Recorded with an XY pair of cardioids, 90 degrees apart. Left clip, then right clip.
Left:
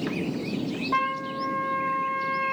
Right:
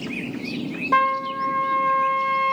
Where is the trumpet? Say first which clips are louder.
Right 7 dB; 65° right, 1.3 m.